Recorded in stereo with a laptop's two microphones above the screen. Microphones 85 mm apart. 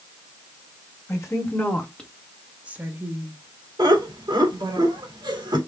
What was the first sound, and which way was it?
A woman speaking, 35° left (ahead or behind).